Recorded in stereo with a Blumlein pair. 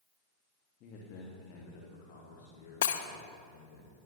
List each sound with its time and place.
0.8 s a man speaking: 40° left, 2 m; by 3.8 s 60° left, 4.5 m
2.8 s breaking glass: 60° left, 0.8 m